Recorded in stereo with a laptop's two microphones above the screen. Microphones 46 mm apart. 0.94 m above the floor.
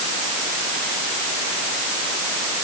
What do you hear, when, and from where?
Only background noise.